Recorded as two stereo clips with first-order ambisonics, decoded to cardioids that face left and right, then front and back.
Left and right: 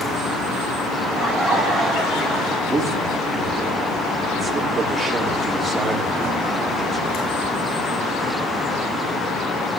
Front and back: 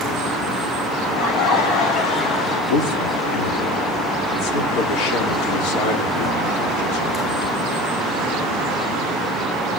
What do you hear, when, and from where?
1.0 s laughter: 15° left, 3.5 m; by 2.6 s 25° left, 2.5 m
2.7 s a man speaking: 10° right, 3 m